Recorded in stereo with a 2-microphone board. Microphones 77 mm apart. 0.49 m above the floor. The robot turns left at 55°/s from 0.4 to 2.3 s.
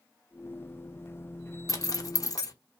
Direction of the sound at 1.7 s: 45° left (ahead or behind).